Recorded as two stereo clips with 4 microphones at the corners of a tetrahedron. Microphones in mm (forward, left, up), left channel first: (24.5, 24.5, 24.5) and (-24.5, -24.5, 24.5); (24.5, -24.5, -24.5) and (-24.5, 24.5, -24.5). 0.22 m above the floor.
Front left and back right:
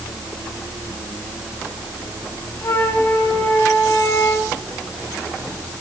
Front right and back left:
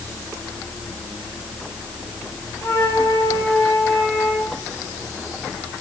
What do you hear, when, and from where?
2.6 s a flute: 10° left, 5 m